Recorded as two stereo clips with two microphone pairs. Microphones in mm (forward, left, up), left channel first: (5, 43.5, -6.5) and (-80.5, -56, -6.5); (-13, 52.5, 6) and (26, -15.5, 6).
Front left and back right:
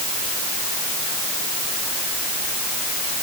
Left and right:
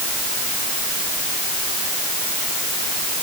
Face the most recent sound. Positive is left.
No sound to turn to.